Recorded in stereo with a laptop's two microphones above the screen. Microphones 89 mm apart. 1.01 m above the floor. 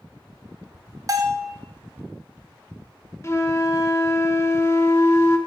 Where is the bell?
40° right (ahead or behind), 0.8 m.